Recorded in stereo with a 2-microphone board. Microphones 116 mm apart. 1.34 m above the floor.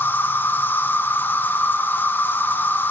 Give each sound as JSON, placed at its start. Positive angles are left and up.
{"t": 0.0, "sound": "an insect", "side_deg": 20, "distance_m": 0.7}